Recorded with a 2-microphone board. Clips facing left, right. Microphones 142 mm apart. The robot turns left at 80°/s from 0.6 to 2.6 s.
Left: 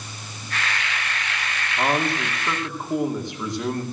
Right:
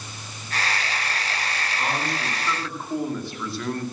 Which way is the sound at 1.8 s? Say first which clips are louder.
Left 6 dB; 85° left.